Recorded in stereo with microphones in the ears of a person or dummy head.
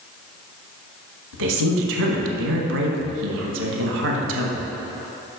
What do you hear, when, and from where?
1.3 s a woman speaking: 75° right (ahead or behind), 1.3 m